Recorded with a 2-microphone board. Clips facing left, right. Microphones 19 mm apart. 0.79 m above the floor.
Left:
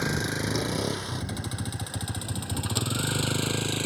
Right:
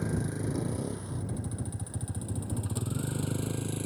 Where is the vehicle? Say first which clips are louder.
Left 5 dB; 70° left (ahead or behind); by 3.9 s 60° left (ahead or behind).